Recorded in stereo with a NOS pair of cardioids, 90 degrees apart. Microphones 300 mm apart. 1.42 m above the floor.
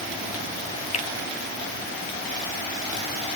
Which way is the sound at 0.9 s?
20° left.